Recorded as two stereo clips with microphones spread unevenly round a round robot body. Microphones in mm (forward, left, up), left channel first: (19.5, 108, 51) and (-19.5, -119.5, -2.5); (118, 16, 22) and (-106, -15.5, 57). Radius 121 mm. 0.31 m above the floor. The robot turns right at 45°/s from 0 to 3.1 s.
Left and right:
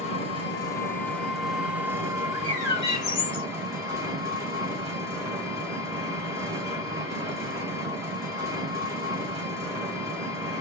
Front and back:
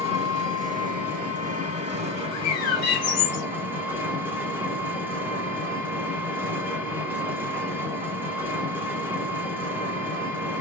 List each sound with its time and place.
0.0 s an engine running: 135° left, 1.3 m; by 10.6 s 85° right, 1.3 m
2.3 s a bird: 10° right, 1.2 m; by 3.5 s 25° left, 1.2 m